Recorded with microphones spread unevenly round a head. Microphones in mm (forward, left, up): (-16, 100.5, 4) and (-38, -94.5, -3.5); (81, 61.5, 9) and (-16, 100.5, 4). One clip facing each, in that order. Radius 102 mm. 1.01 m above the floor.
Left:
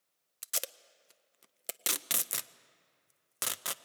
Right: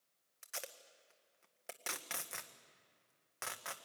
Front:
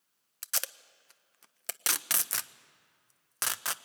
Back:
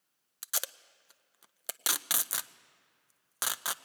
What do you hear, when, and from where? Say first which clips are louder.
0.4 s tape being pulled: left 5 dB, even; 85° left, 0.6 m